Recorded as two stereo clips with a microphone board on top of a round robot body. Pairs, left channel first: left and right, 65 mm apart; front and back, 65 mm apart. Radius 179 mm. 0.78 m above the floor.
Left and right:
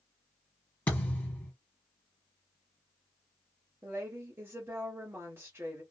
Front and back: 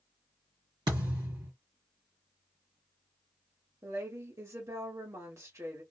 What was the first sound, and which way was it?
A thud, 160° left.